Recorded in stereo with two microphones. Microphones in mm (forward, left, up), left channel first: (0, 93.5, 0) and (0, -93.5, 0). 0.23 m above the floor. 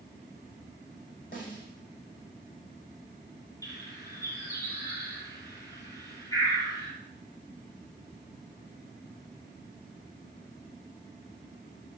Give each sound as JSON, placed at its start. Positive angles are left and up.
{"t": 1.3, "sound": "a snare drum", "side_deg": 50, "distance_m": 5.5}
{"t": 3.6, "sound": "a bird", "side_deg": 20, "distance_m": 5.0}